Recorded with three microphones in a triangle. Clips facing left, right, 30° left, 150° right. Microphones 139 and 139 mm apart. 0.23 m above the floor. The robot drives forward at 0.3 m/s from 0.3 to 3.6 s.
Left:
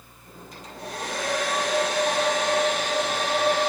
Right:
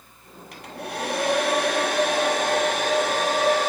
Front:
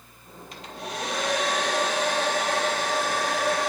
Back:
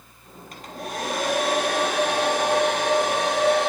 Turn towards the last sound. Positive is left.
turn(degrees=-135)